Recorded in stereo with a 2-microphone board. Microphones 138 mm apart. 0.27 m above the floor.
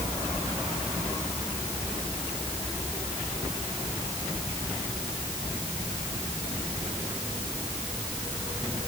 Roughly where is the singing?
I don't hear singing.